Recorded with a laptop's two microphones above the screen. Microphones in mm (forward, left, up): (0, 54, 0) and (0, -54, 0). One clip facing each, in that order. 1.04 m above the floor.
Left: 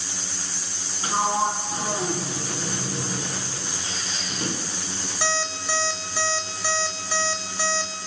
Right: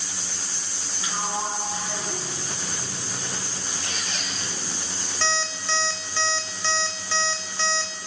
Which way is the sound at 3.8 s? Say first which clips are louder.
Even; 65° right (ahead or behind).